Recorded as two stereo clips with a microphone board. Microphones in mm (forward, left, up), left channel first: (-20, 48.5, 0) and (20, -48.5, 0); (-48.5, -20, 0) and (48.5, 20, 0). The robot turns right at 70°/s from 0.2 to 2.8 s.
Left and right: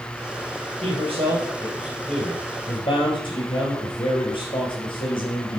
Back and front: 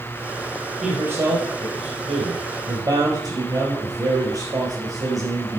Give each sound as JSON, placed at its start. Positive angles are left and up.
{"t": 0.8, "sound": "a man speaking", "azimuth_deg": -65, "distance_m": 4.0}